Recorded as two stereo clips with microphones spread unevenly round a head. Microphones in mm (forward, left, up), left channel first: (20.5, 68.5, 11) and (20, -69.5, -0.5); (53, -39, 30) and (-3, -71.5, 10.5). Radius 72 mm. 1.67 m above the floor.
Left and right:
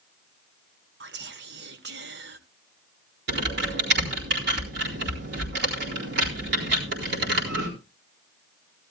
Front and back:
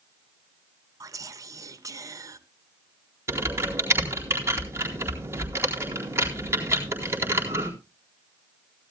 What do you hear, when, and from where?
1.0 s whispering: 110° right, 1.2 m
3.3 s typing on a keyboard: 100° right, 4 m